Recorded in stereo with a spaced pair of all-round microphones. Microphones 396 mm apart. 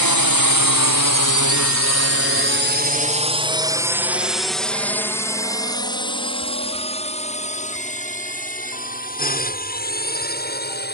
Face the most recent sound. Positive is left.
turn(degrees=25)  # may be behind; listen again after turning